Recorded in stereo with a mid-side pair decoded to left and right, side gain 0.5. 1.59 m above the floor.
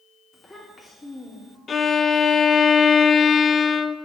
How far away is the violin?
About 0.5 m.